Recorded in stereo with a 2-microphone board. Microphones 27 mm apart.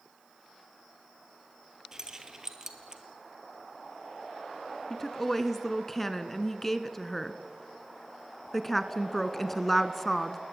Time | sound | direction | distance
1.9 | keys jangling | 25° right (ahead or behind) | 2 m
4.9 | a woman speaking | 10° left (ahead or behind) | 1.1 m